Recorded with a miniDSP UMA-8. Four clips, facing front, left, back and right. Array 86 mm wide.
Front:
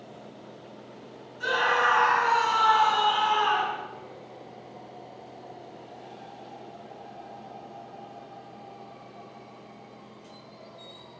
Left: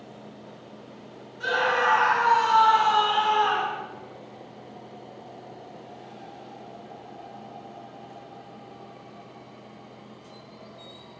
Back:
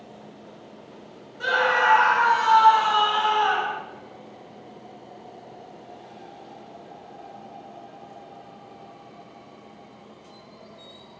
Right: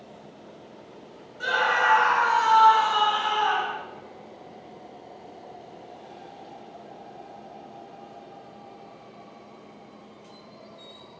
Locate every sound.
1.4 s a scream: 135° right, 4.5 m; by 3.8 s 150° right, 5 m